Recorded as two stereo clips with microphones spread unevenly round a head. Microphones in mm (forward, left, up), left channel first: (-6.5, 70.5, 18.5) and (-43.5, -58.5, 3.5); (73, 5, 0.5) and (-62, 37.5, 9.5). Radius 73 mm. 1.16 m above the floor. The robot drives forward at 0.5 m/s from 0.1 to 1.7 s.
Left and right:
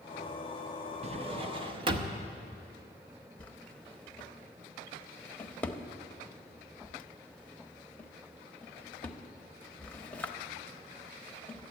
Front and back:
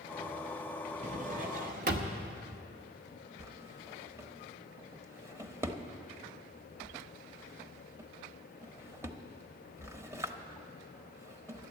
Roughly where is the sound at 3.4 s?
Behind left.